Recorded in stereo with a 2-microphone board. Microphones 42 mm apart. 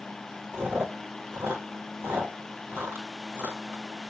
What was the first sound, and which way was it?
Chewing, 65° right (ahead or behind).